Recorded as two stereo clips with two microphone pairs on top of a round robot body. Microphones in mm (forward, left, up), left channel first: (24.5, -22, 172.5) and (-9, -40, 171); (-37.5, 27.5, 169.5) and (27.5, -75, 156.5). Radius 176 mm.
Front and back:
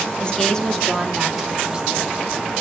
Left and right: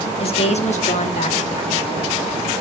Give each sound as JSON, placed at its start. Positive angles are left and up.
{"t": 0.2, "sound": "a woman speaking", "azimuth_deg": 90, "distance_m": 1.3}